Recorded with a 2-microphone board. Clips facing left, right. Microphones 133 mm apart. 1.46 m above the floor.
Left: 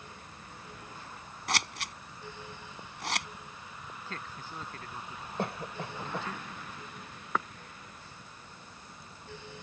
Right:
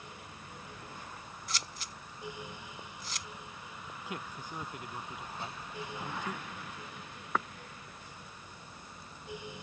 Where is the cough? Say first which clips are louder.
Left 10 dB; 65° left (ahead or behind).